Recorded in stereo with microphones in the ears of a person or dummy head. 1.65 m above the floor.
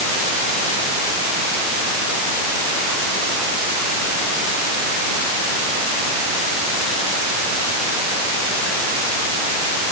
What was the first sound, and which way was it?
Only background noise.